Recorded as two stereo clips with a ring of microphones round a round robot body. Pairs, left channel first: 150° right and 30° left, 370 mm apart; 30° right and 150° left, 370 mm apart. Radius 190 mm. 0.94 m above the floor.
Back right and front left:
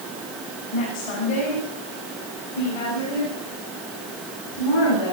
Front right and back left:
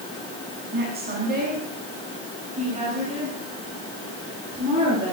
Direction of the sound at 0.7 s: 145° right.